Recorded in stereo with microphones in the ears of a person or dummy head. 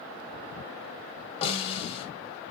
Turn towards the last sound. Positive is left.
turn(degrees=35)  # may be behind; listen again after turning